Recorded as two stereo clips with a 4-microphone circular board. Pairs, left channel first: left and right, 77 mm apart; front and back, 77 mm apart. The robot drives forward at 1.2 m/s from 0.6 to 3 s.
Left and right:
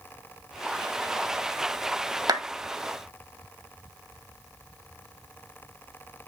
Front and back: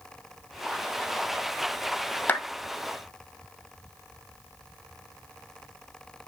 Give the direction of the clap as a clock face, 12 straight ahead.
2 o'clock.